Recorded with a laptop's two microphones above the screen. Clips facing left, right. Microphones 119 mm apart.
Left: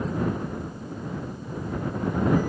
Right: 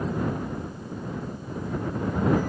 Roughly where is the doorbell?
I don't hear a doorbell.